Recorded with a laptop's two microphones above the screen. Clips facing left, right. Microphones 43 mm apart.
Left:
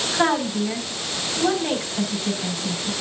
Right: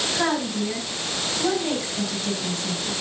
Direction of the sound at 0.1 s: 25° left (ahead or behind).